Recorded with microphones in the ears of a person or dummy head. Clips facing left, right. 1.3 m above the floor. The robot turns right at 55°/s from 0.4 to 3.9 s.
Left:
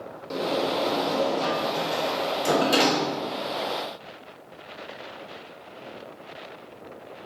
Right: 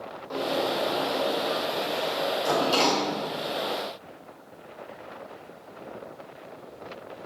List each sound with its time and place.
0.3 s a sliding door: 25° left (ahead or behind), 1.8 m; by 3.3 s 5° right (ahead or behind), 1.8 m